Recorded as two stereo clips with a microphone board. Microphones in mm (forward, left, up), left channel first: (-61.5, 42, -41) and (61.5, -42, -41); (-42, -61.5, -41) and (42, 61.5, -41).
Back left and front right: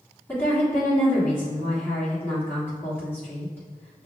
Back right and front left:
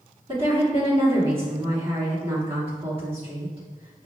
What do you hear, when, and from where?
0.3 s a woman speaking: 75° left, 1.5 m